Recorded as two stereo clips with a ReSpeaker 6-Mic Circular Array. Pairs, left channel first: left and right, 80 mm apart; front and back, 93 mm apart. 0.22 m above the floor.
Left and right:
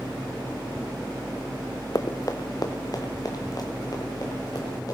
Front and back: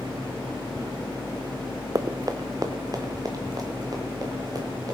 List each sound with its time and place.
1.9 s running footsteps: 130° left, 0.7 m; by 5.0 s 135° left, 4.5 m